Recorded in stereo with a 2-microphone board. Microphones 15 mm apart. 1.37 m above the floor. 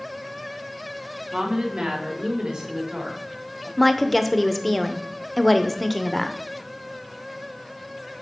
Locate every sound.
1.3 s a woman speaking: 75° right (ahead or behind), 1.5 m; by 3.7 s 65° right (ahead or behind), 2.5 m
3.8 s a woman speaking: 5° left (ahead or behind), 0.7 m